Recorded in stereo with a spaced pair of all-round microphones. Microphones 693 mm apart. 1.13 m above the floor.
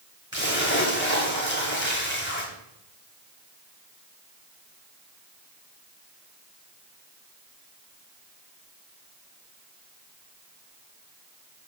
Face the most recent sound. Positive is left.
turn(degrees=15)  # may be behind; listen again after turning